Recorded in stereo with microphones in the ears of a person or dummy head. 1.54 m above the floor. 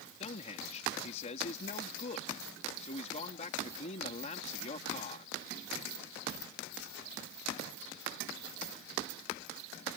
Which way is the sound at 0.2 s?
45° left (ahead or behind).